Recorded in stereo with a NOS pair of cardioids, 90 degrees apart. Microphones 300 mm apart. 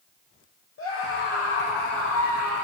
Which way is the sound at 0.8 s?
45° left.